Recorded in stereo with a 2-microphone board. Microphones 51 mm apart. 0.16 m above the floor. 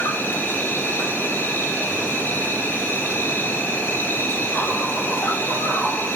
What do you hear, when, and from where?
0.0 s an insect: 40° left (ahead or behind), 2.5 m